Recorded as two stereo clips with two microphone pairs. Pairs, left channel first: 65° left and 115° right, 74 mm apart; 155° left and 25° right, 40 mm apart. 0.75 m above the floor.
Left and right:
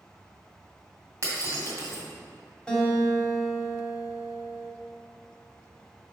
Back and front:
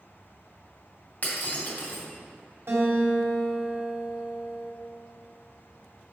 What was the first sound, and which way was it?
Breaking glass, 165° right.